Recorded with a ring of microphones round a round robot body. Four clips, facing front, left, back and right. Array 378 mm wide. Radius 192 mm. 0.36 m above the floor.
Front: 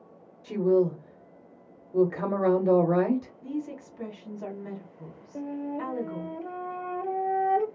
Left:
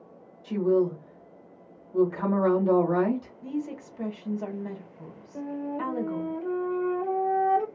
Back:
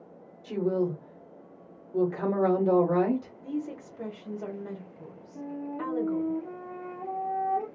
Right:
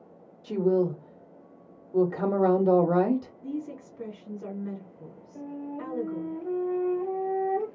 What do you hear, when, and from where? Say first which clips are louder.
0.4 s a woman speaking: left 1 dB, front 4 dB; 65° right, 1.1 m
3.4 s a woman speaking: left 2 dB, even; 85° left, 1.6 m
5.3 s a flute: left 5 dB, front 3 dB; 25° left, 0.6 m